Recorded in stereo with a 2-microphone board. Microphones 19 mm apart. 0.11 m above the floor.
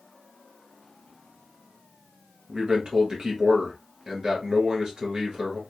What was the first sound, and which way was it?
A man speaking, 40° right (ahead or behind).